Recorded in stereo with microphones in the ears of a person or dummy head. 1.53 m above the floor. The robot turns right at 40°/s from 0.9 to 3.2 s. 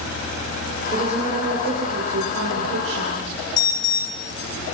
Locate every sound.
0.9 s a woman speaking: 155° right, 6.5 m; by 3.4 s 65° right, 6.5 m
3.6 s an alarm: 20° left (ahead or behind), 1.3 m